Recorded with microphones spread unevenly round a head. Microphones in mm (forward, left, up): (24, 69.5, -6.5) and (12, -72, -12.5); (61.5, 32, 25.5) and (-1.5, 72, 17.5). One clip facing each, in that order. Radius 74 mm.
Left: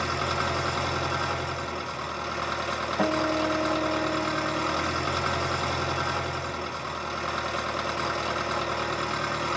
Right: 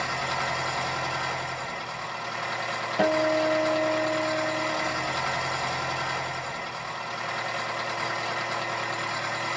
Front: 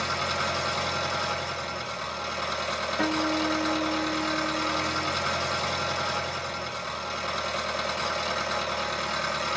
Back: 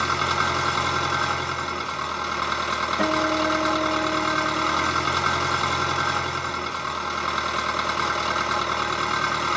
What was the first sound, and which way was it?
An engine running, 115° left.